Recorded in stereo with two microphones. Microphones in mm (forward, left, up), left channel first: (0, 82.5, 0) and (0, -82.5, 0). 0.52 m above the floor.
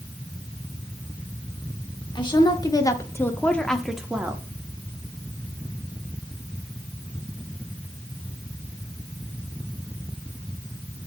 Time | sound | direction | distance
2.1 | a woman speaking | 30° left (ahead or behind) | 1.2 m